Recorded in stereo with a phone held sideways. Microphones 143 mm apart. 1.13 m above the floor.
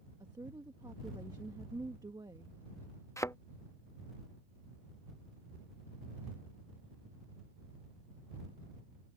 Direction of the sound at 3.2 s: 20° left (ahead or behind).